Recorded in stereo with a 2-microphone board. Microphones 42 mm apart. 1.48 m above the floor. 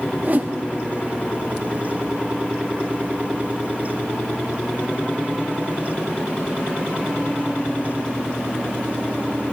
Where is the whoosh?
45° right (ahead or behind), 0.7 m.